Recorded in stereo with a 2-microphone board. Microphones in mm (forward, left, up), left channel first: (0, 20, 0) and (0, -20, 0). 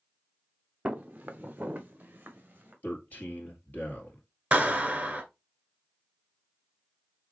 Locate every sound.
0.8 s footsteps: 30° right (ahead or behind), 0.8 m; by 2.7 s 40° right (ahead or behind), 2 m
2.8 s a man speaking: 45° left (ahead or behind), 2.5 m
4.5 s a clap: 30° right (ahead or behind), 1.3 m